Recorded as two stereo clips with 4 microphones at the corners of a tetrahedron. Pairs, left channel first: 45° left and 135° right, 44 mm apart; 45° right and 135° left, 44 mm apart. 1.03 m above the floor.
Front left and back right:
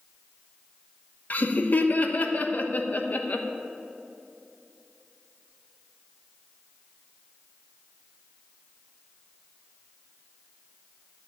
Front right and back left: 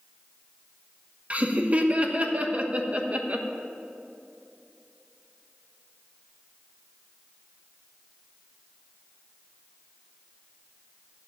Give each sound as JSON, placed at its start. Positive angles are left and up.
{"t": 1.3, "sound": "laughter", "azimuth_deg": 85, "distance_m": 1.1}